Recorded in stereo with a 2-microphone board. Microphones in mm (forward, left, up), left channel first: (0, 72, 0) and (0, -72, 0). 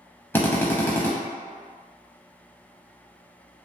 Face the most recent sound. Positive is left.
turn(degrees=15)  # may be behind; listen again after turning